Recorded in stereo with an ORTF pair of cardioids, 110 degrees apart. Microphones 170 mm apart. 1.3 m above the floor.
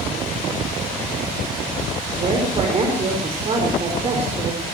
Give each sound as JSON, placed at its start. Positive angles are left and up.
{"t": 2.1, "sound": "a woman speaking", "azimuth_deg": -40, "distance_m": 4.5}